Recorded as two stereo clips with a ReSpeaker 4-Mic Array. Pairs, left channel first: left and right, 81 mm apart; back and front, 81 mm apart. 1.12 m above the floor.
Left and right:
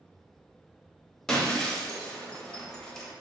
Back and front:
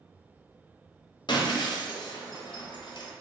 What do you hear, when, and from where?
1.3 s breaking glass: 175° left, 0.6 m